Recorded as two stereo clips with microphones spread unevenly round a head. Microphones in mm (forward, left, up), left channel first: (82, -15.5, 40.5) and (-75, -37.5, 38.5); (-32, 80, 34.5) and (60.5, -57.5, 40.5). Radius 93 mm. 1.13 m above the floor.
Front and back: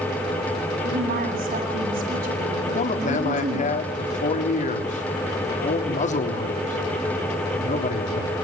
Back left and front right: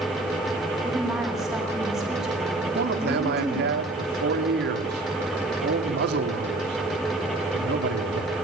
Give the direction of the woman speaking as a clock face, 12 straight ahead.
5 o'clock.